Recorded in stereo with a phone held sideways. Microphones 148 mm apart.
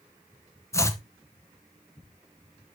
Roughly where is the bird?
I don't hear a bird.